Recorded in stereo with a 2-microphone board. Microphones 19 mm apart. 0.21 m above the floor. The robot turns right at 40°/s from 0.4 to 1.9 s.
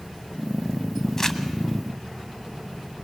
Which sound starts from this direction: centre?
Crumpling, at 1.2 s.